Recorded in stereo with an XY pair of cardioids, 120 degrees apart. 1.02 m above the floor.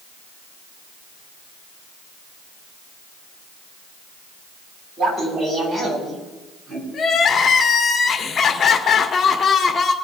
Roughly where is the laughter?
Ahead right.